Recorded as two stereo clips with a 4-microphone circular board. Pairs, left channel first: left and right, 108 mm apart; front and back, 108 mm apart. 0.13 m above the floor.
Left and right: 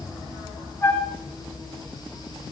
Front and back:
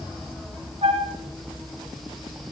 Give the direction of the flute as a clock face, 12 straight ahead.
7 o'clock.